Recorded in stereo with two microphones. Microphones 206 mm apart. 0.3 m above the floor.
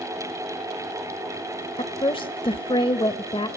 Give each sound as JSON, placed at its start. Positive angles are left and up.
{"t": 1.8, "sound": "a woman speaking", "side_deg": 25, "distance_m": 0.9}